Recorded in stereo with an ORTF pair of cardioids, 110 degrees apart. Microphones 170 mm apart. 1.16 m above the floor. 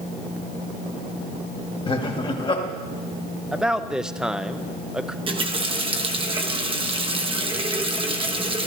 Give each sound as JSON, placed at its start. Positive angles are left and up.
{"t": 1.9, "sound": "laughter", "azimuth_deg": 30, "distance_m": 1.7}
{"t": 3.5, "sound": "a man speaking", "azimuth_deg": -5, "distance_m": 0.6}
{"t": 5.3, "sound": "a running tap", "azimuth_deg": -35, "distance_m": 0.9}